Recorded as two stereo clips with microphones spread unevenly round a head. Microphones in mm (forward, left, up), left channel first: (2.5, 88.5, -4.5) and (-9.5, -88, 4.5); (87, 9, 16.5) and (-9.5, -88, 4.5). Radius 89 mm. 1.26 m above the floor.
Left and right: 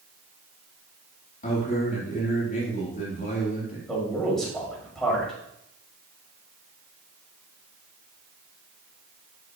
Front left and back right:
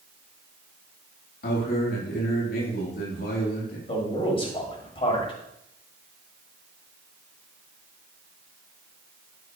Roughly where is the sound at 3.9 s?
Ahead.